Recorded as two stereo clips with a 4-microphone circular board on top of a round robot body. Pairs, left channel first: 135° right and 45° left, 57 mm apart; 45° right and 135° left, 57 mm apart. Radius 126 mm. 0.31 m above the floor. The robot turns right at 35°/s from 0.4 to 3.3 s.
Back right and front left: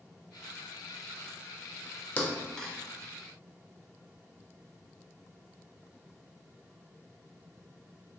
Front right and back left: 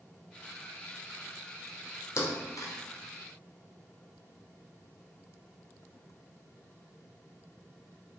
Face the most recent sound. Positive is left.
turn(degrees=-30)